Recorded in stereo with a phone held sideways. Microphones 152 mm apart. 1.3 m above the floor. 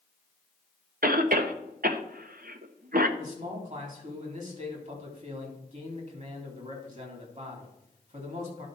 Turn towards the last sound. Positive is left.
turn(degrees=-55)  # may be behind; listen again after turning